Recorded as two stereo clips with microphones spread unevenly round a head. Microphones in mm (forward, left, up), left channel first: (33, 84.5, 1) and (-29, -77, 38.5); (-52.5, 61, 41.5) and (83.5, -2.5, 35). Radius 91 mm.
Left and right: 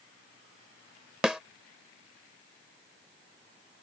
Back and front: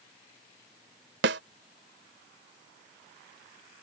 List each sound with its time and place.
1.2 s a snare drum: 30° right